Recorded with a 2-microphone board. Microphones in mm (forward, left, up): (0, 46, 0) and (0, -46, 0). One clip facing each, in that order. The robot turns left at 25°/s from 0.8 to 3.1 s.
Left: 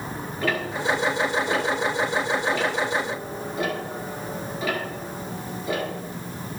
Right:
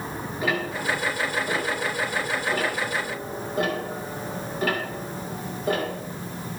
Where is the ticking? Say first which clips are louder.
Left 1 dB; 15° right (ahead or behind), 2.5 m; by 5.9 s 50° right (ahead or behind), 2.5 m.